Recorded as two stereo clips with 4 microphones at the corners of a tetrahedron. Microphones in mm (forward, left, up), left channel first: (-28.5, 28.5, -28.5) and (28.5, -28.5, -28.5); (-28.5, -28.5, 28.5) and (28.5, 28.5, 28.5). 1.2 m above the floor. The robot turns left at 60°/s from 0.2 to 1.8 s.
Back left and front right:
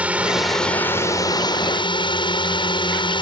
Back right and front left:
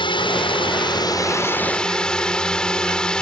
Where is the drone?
120° right; by 3.2 s 145° left.